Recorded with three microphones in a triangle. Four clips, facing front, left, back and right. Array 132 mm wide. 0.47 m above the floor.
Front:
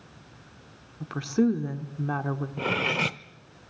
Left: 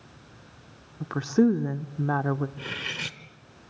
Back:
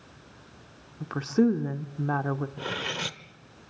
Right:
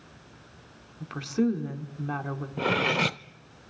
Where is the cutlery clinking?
70° right, 0.7 m.